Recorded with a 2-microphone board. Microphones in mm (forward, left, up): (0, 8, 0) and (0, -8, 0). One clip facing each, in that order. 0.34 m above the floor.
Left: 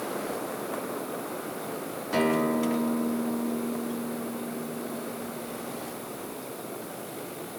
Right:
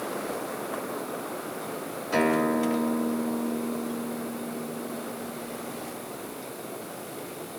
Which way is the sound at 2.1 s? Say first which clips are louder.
Right 1 dB; 40° right (ahead or behind).